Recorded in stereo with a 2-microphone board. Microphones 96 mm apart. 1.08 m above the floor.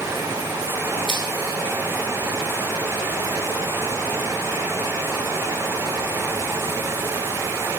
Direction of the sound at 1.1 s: 65° right (ahead or behind).